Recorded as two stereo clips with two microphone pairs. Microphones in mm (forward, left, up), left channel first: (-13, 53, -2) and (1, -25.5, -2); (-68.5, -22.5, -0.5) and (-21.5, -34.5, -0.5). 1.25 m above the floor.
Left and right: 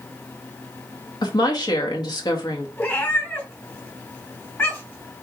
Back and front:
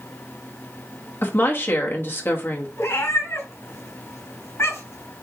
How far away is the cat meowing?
About 3.5 m.